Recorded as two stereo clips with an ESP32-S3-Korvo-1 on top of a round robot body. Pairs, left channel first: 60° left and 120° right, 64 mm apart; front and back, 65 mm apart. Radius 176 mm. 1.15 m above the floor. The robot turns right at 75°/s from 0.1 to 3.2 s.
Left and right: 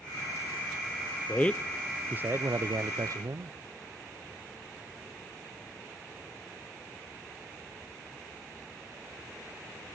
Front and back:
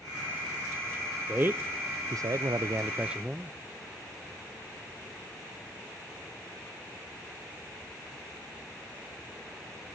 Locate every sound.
1.3 s a man speaking: 115° left, 0.5 m; by 3.5 s 100° right, 0.5 m